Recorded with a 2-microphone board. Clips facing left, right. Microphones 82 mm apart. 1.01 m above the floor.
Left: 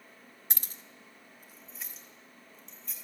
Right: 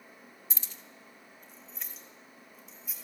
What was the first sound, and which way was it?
Keys jangling, 65° left (ahead or behind).